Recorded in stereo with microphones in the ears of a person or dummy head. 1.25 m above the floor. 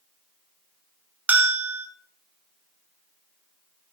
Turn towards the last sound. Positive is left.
turn(degrees=-10)  # may be behind; listen again after turning